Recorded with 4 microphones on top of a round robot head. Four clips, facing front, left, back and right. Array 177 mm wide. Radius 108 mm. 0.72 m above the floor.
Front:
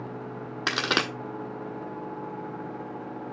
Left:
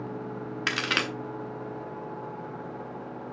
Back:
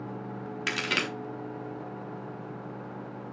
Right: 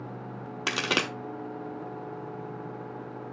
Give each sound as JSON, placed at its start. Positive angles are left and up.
{"t": 0.7, "sound": "a crack", "azimuth_deg": -40, "distance_m": 1.1}